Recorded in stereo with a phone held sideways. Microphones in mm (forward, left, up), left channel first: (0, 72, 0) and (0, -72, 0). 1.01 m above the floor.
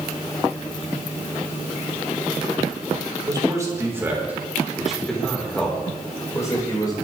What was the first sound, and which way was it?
A man speaking, 25° right (ahead or behind).